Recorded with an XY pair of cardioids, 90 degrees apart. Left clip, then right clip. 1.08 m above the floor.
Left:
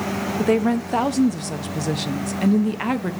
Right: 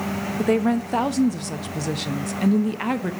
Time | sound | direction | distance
0.4 | a woman speaking | 5° left | 0.8 m